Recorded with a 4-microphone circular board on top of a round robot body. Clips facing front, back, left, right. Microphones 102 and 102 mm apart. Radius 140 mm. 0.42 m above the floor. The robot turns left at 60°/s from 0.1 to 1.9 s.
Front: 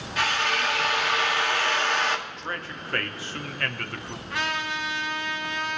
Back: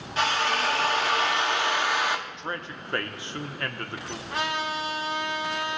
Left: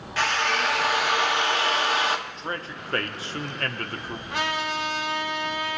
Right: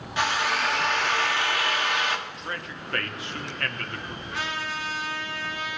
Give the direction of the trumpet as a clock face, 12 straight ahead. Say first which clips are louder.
Back 1 dB, left 5 dB; 8 o'clock.